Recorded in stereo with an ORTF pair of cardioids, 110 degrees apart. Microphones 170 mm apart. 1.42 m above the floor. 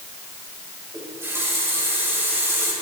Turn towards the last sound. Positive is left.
turn(degrees=-15)